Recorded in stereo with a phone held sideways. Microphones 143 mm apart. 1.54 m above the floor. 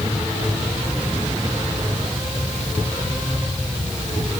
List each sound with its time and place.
Only background noise.